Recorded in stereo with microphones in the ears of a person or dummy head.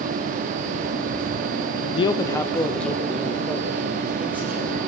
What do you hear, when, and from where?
1.9 s a man speaking: 30° left (ahead or behind), 0.5 m; by 4.8 s 5° right (ahead or behind), 2.5 m